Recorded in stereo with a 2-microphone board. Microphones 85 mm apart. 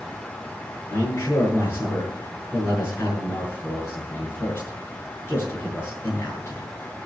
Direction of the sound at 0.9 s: 30° left (ahead or behind).